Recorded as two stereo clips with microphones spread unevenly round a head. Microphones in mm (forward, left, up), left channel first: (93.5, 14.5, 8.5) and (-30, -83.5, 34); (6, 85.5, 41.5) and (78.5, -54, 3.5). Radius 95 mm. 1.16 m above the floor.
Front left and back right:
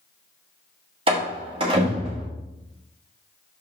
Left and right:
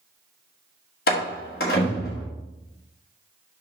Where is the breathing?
I don't hear breathing.